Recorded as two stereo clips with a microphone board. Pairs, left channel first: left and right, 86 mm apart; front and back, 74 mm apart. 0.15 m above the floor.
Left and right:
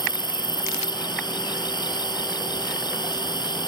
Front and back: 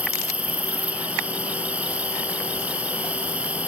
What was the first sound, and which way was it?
An insect, 110° left.